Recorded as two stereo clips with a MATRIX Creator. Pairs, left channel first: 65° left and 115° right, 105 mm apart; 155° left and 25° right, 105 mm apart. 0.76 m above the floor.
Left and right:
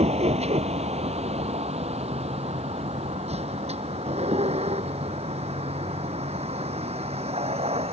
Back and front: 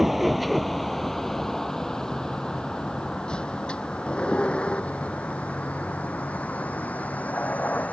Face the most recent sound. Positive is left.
turn(degrees=-125)